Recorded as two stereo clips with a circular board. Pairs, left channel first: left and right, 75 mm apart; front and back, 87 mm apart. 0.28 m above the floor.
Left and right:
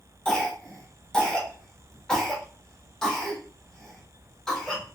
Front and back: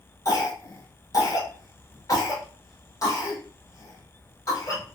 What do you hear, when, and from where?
0.2 s a cough: 15° left, 1.2 m